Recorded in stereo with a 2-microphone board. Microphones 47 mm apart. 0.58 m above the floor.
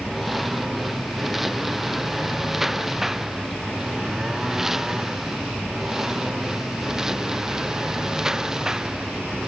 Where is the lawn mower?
5° right (ahead or behind); by 9.5 s 15° right (ahead or behind).